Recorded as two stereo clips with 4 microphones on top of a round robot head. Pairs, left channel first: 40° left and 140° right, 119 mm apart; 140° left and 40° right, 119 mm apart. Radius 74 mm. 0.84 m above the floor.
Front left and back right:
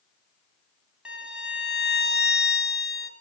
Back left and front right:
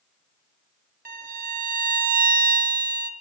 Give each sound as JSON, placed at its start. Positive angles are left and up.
{"t": 1.1, "sound": "a violin", "azimuth_deg": -55, "distance_m": 1.0}